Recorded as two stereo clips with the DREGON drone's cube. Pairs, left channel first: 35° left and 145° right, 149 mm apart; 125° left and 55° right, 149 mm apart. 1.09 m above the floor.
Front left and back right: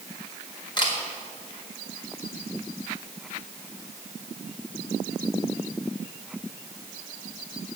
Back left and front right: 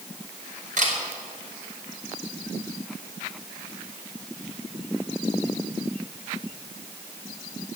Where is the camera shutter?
25° right, 2.5 m.